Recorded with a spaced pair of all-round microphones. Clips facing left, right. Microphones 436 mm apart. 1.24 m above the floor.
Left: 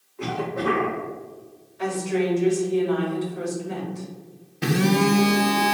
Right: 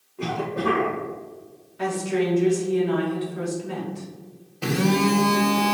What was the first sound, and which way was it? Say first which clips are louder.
A cough: even; 50° right (ahead or behind).